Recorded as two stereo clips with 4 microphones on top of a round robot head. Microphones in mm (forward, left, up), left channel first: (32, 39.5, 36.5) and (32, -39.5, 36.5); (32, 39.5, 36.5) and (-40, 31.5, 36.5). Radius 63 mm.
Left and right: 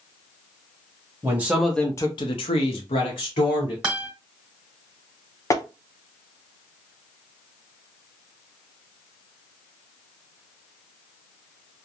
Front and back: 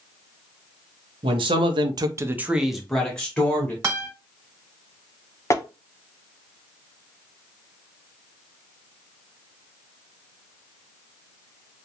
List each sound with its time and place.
1.2 s a man speaking: 160° right, 0.8 m; by 3.7 s 75° left, 1.4 m
3.8 s a guitar: 160° right, 1.3 m
5.5 s tapping: 50° left, 0.6 m